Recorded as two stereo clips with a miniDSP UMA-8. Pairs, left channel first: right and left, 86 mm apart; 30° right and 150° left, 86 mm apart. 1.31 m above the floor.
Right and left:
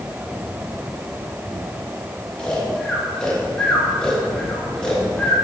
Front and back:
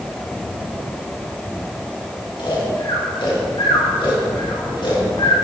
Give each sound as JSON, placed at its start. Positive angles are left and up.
{"t": 2.4, "sound": "snoring", "azimuth_deg": -10, "distance_m": 1.9}